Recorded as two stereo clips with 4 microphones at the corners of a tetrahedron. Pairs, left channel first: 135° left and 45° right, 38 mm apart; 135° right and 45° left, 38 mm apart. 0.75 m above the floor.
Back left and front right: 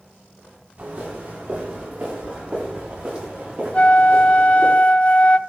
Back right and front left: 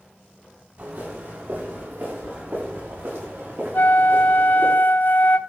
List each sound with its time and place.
0.8 s footsteps: 15° left, 6.5 m; by 4.7 s 25° left, 11 m
3.7 s a flute: 170° right, 0.5 m